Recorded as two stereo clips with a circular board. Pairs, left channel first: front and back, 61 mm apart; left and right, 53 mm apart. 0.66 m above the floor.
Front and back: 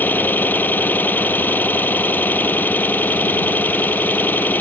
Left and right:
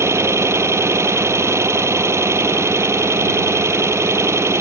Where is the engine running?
60° right.